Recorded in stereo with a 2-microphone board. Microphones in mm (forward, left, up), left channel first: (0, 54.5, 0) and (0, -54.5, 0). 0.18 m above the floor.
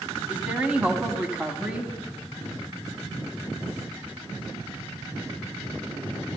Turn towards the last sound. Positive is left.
turn(degrees=-10)  # may be behind; listen again after turning